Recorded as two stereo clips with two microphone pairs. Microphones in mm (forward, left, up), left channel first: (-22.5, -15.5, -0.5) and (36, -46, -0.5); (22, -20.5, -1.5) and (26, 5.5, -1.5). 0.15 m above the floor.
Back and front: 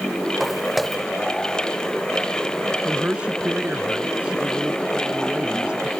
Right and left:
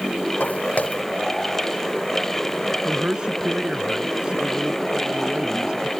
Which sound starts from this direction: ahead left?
A man speaking, at 2.9 s.